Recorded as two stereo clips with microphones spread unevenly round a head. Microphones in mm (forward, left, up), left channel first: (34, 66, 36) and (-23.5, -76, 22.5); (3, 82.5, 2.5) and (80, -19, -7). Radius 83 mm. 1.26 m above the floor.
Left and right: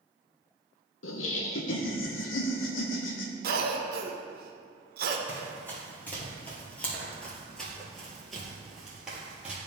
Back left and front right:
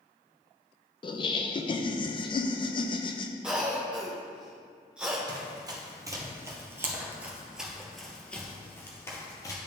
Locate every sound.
1.0 s laughter: 75° left, 0.6 m
3.4 s a cough: 135° right, 1.0 m
5.3 s running footsteps: straight ahead, 1.8 m; by 9.6 s 160° left, 1.5 m